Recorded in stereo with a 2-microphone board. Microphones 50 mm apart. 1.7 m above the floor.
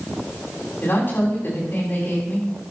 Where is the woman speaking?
50° left (ahead or behind), 5.5 m.